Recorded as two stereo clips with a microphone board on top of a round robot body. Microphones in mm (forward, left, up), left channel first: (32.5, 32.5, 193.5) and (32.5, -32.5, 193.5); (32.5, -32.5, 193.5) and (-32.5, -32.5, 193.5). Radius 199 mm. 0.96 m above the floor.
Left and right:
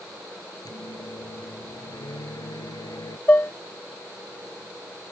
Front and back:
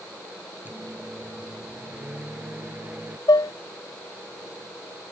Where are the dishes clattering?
25° left.